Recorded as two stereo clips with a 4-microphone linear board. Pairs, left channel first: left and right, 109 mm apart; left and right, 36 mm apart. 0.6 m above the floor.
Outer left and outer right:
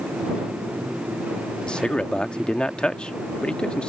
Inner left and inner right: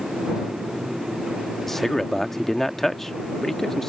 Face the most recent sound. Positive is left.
turn(degrees=10)  # may be behind; listen again after turning